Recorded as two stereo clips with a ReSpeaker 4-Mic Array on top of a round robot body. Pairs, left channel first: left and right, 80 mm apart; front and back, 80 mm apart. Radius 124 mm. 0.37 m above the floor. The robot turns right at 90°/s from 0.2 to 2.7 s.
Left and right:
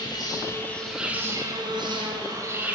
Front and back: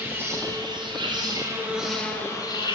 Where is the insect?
120° left, 4 m; by 2.8 s 15° right, 4 m.